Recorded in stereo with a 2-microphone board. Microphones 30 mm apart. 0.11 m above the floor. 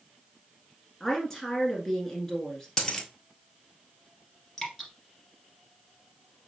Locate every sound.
1.0 s a woman speaking: 15° left (ahead or behind), 1.3 m
2.8 s a dropped coin: 10° left (ahead or behind), 1.1 m
4.6 s dripping: 5° left (ahead or behind), 1.8 m